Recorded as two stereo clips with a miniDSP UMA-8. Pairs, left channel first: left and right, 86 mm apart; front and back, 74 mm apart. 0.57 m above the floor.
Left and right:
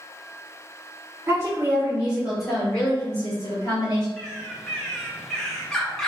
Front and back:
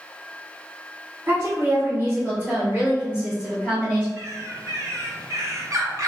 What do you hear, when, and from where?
1.3 s a woman speaking: 140° right, 1.7 m; by 4.1 s 95° left, 1.6 m
4.2 s a bird: 175° left, 0.6 m